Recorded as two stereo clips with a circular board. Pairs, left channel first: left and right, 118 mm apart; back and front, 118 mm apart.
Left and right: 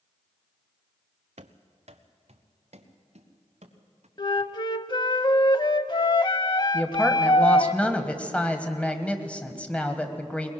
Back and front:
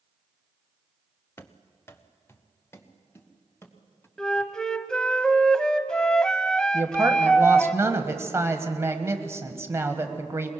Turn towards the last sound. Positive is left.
turn(degrees=25)